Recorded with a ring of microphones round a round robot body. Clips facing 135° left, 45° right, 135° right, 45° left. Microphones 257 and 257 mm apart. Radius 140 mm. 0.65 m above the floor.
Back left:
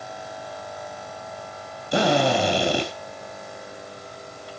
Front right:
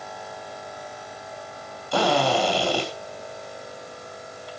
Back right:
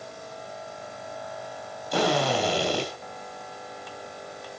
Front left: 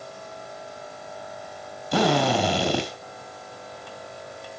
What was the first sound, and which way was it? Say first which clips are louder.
A drill: back left 2 dB, front left 3 dB; 65° left.